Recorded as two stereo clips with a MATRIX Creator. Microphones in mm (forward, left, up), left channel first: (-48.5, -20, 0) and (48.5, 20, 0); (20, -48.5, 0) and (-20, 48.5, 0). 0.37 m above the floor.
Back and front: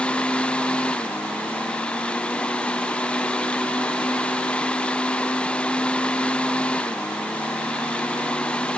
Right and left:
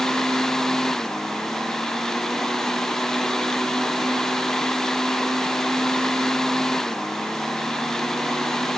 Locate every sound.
Only background noise.